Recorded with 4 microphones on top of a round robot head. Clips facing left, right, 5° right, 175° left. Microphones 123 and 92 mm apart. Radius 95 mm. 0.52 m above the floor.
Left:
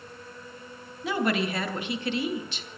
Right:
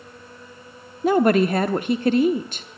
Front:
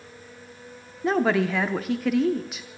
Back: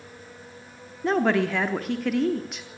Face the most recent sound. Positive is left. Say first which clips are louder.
# right 10 dB, even
turn(degrees=-90)